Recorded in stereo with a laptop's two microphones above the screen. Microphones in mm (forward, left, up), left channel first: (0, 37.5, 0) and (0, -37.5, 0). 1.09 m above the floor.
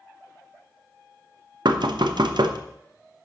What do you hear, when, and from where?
1.6 s knocking: 80° right, 0.7 m